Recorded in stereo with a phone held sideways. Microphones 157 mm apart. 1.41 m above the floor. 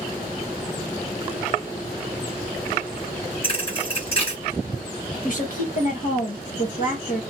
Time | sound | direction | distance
3.4 | a thud | 35° left (ahead or behind) | 1.7 m
5.2 | a woman speaking | 60° left (ahead or behind) | 1.2 m